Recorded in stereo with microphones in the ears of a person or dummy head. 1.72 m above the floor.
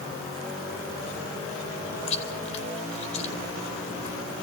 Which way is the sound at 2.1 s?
35° left (ahead or behind).